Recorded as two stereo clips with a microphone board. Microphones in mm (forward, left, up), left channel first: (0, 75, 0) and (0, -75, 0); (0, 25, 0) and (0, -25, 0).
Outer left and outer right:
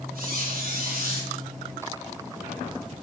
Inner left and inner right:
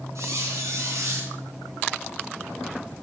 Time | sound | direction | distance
0.1 | a squeak | 75° right (ahead or behind) | 3 m